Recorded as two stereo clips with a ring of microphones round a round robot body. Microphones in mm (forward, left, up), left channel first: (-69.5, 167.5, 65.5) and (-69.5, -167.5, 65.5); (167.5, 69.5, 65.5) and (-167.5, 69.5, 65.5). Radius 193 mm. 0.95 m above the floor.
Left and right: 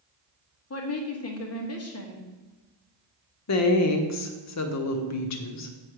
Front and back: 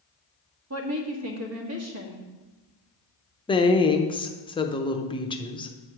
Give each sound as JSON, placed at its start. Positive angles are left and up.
{"t": 0.7, "sound": "a woman speaking", "azimuth_deg": 135, "distance_m": 1.6}
{"t": 3.5, "sound": "a woman speaking", "azimuth_deg": 75, "distance_m": 1.0}